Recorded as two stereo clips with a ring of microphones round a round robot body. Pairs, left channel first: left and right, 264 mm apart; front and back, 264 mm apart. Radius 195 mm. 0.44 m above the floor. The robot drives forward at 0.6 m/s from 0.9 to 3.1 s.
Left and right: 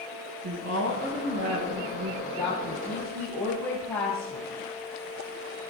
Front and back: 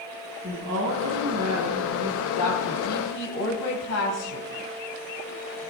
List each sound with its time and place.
0.4 s a woman speaking: 110° right, 7.5 m; by 2.1 s 115° right, 8 m
2.2 s a woman speaking: 5° left, 3.5 m